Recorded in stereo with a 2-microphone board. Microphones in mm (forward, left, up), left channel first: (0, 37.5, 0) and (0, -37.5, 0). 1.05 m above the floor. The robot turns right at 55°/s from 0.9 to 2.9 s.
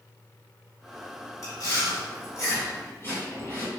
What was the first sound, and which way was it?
Chewing, 45° left (ahead or behind).